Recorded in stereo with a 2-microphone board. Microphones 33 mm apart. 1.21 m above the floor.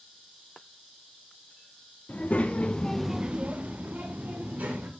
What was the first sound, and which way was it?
A child speaking, 55° left (ahead or behind).